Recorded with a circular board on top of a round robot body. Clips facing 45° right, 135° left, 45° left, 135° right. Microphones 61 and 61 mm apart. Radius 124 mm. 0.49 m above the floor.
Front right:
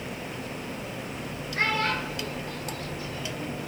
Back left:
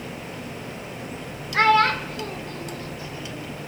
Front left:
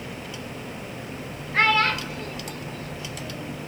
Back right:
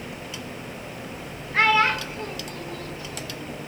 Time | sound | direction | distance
1.5 | a child speaking | 135° left | 1.2 m